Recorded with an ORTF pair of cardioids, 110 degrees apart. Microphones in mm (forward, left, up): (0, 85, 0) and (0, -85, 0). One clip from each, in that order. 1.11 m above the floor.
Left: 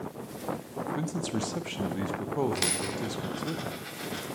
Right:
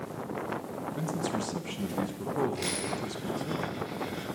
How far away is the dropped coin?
About 1.5 m.